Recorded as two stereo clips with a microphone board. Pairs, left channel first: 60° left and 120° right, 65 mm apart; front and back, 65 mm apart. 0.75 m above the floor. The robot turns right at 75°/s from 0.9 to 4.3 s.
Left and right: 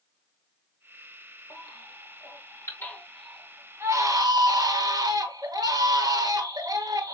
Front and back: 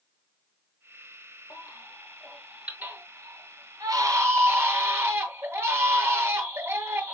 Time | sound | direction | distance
1.5 | a baby crying | 25° left | 2 m